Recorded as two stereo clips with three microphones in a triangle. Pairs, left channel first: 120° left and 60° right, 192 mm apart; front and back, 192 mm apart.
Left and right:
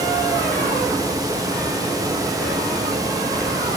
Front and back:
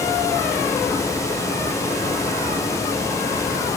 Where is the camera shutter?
No camera shutter in this recording.